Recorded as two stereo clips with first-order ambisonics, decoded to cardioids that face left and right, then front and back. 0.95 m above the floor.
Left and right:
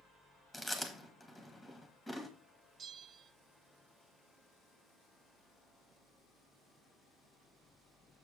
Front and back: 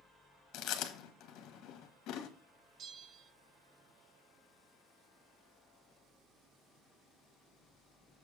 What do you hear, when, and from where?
0.5 s chewing: straight ahead, 1.2 m
2.8 s a bell: 140° right, 0.6 m